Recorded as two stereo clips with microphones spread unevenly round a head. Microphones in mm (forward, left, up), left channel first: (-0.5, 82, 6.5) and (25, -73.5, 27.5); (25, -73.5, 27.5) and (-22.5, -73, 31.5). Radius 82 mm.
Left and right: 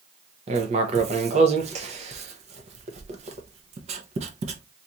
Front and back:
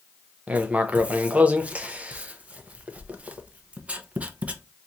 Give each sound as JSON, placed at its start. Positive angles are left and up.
{"t": 0.5, "sound": "writing", "azimuth_deg": -125, "distance_m": 0.7}